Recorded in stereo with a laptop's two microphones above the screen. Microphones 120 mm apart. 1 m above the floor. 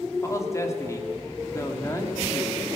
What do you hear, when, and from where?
0.2 s a man speaking: 25° left (ahead or behind), 1.9 m